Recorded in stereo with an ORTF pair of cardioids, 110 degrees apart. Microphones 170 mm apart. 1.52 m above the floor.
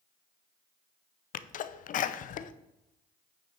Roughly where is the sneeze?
Ahead left.